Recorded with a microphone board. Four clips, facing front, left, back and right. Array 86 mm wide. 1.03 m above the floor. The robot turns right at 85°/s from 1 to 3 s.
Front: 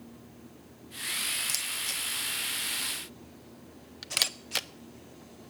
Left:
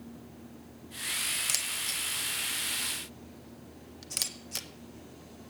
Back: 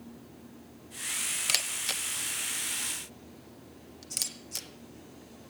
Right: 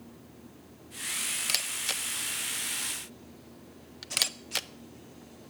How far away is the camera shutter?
About 0.6 m.